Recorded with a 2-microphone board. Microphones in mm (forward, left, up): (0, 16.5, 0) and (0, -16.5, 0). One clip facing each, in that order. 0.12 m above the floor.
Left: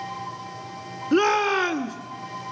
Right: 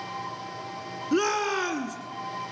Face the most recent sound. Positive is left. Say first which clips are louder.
# left 5 dB
turn(degrees=20)  # may be behind; listen again after turning